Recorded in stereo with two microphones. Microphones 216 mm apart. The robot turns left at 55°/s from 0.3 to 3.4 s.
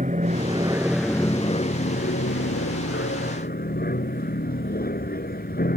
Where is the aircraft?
140° right; by 5.8 s 50° left.